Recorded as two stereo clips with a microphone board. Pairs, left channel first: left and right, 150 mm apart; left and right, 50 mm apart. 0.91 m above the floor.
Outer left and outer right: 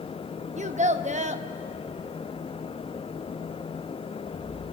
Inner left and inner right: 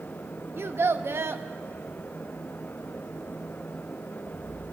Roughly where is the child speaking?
Right.